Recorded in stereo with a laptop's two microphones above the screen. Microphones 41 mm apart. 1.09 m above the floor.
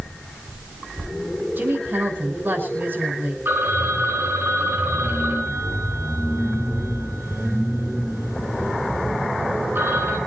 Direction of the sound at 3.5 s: 65° right (ahead or behind).